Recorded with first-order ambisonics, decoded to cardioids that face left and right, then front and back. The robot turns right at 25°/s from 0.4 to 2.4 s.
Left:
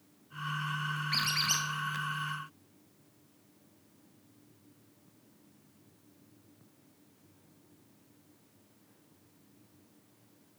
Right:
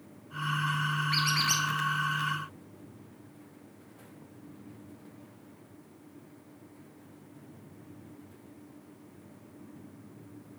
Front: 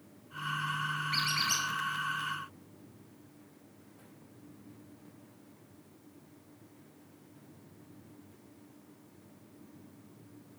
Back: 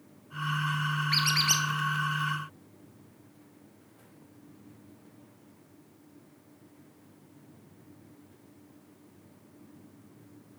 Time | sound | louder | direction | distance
1.1 | a squeak | right 2 dB, back 6 dB | straight behind | 1.4 m